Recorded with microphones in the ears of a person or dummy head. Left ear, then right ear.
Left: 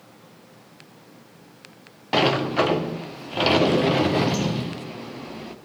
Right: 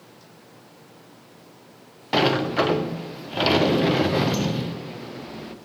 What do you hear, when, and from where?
2.1 s a sliding door: 5° left (ahead or behind), 0.6 m